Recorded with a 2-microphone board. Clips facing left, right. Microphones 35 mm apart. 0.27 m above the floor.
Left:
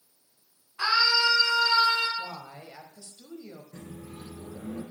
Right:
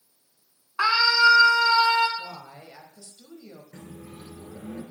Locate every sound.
0.8 s a scream: 65° right (ahead or behind), 2 m; by 2.1 s 50° right (ahead or behind), 1.6 m
2.2 s a woman speaking: 25° left (ahead or behind), 1.0 m
3.7 s a microwave: 75° right (ahead or behind), 3 m